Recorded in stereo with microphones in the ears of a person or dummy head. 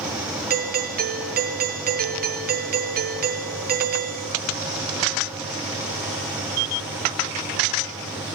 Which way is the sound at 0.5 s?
45° right (ahead or behind).